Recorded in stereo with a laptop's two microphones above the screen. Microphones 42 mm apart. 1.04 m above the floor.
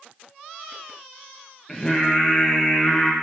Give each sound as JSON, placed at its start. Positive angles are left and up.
{"t": 1.7, "sound": "singing", "side_deg": 10, "distance_m": 0.9}